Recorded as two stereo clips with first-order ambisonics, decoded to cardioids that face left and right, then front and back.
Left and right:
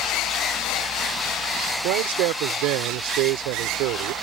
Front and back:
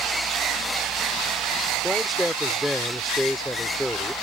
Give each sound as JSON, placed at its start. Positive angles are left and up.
{"t": 1.8, "sound": "a man speaking", "azimuth_deg": -90}